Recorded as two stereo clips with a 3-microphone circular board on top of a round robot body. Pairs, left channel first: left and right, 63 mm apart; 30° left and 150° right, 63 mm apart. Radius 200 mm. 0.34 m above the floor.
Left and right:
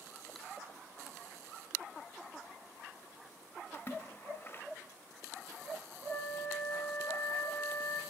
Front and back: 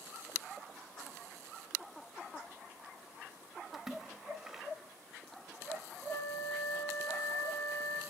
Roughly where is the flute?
Ahead left.